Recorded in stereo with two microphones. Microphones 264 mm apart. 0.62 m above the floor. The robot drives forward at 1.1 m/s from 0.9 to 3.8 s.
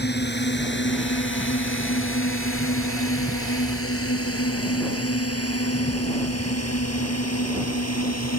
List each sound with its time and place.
0.0 s a drone: 40° left (ahead or behind); by 8.4 s 70° left (ahead or behind)